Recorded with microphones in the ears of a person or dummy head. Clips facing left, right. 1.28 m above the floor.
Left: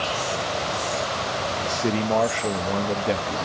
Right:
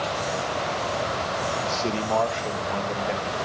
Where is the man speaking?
20° left (ahead or behind), 1.1 m; by 3.5 s 55° left (ahead or behind), 1.8 m.